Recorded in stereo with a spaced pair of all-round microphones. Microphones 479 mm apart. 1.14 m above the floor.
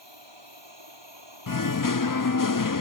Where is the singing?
45° left (ahead or behind).